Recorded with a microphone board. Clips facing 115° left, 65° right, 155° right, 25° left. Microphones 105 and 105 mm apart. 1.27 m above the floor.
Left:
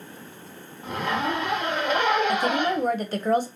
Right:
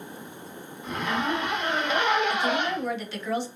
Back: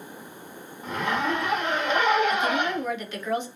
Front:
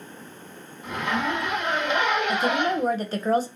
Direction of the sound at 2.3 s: 70° left.